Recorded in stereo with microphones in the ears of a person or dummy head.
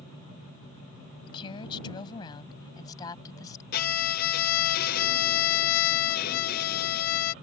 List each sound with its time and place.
1.3 s a woman speaking: 25° left (ahead or behind); by 3.6 s 20° left (ahead or behind)
3.7 s a violin: 50° left (ahead or behind)